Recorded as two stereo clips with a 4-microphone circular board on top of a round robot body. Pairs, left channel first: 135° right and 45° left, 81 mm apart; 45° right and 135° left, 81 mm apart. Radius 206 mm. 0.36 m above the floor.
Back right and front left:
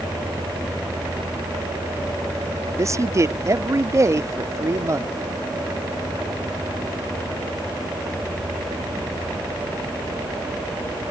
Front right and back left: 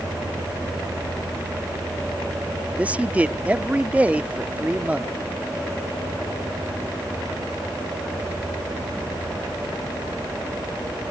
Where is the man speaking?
70° left.